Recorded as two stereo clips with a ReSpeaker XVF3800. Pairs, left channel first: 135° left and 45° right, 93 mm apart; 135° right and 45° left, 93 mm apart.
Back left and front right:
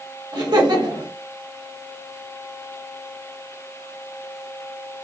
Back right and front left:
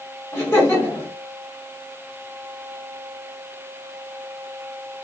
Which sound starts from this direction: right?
Laughter, at 0.3 s.